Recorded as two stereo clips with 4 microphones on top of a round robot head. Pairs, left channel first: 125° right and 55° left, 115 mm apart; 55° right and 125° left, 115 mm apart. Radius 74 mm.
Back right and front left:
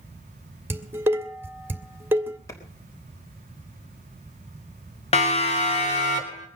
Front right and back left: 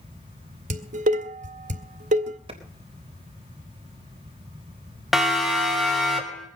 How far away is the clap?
About 3.5 m.